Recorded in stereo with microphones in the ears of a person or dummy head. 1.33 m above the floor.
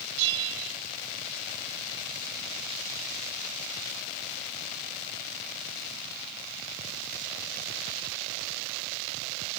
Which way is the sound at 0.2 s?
60° right (ahead or behind).